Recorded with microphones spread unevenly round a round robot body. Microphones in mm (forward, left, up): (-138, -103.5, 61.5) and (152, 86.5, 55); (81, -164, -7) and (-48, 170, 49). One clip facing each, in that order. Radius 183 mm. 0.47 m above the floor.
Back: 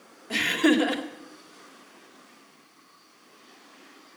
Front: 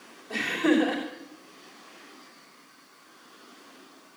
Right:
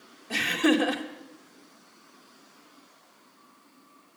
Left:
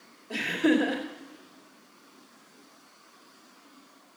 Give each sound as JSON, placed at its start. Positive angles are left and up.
{"t": 0.3, "sound": "laughter", "azimuth_deg": -125, "distance_m": 2.0}